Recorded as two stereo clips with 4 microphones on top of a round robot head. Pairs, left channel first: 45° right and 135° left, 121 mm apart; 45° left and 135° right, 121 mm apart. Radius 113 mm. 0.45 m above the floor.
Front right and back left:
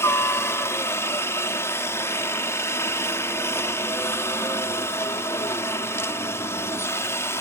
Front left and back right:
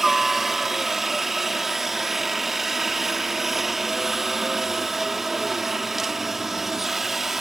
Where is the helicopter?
50° right.